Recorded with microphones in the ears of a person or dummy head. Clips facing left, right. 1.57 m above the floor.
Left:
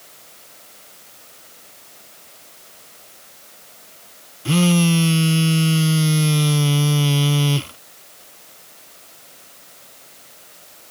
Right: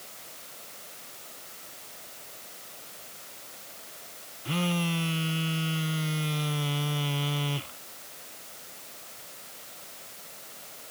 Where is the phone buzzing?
55° left (ahead or behind).